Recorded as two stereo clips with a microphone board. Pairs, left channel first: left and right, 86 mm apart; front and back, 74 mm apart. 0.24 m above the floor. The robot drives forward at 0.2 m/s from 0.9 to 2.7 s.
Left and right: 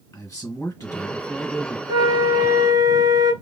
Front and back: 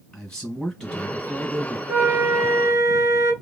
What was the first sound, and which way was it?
A man speaking, 70° left.